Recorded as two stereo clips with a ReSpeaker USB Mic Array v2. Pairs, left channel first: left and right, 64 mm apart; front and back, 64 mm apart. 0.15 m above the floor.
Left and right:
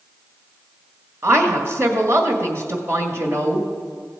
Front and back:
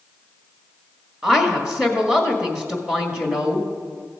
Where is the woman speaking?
110° right, 1.8 m.